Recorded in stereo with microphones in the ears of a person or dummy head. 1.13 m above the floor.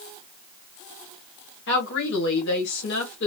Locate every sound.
1.7 s a woman speaking: 55° left (ahead or behind), 1.3 m